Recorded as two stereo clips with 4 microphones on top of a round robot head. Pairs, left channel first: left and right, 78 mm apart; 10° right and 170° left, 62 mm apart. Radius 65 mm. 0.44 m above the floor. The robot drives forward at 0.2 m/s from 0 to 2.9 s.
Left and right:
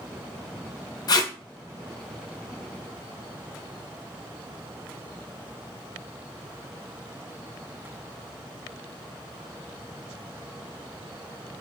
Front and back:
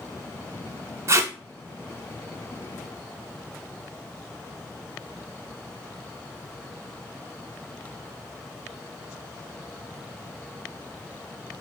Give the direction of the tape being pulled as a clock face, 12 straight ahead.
8 o'clock.